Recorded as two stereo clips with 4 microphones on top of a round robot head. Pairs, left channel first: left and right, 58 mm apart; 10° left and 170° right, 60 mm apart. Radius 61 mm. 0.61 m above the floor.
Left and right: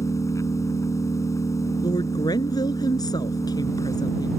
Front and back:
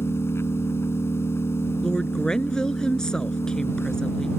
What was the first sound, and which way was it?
An engine running, 55° left.